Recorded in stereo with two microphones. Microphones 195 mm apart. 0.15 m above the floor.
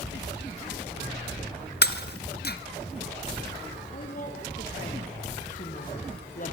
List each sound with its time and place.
1.8 s breaking glass: 55° left (ahead or behind), 1.4 m
3.9 s a woman speaking: 45° left (ahead or behind), 5.5 m